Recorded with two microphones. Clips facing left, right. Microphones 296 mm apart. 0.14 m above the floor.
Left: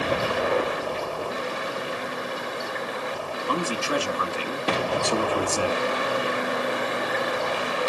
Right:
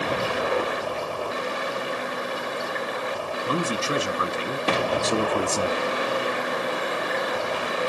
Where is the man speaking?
25° right (ahead or behind), 1.1 m.